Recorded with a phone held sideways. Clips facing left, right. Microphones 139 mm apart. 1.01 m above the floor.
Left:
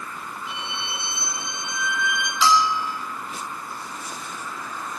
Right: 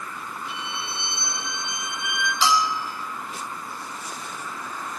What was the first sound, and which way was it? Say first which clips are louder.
A violin: left 1 dB; 70° left (ahead or behind).